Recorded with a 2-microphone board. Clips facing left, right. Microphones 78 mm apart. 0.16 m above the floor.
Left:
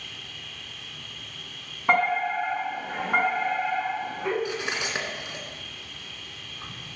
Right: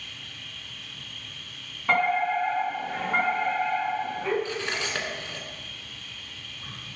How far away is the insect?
About 3 m.